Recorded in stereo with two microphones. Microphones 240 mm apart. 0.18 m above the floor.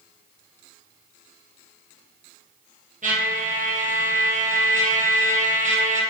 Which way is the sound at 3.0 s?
35° right (ahead or behind).